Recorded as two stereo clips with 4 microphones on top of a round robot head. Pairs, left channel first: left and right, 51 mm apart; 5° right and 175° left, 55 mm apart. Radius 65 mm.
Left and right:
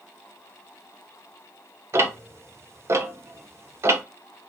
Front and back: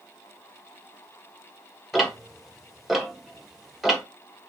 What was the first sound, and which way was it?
Ticking, 100° right.